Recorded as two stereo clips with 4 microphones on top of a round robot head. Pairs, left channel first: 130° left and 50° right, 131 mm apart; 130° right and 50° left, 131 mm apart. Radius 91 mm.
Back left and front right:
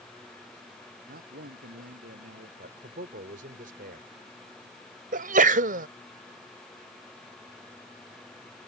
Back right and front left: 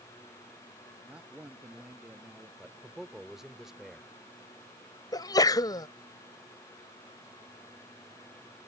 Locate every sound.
1.1 s a man speaking: 35° right
2.6 s a man speaking: 40° right
5.1 s a sneeze: 70° right